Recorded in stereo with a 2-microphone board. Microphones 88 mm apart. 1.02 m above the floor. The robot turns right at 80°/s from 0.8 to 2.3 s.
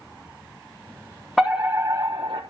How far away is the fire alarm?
About 3 m.